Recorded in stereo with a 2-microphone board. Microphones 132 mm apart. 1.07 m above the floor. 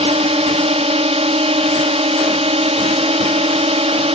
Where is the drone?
50° right (ahead or behind).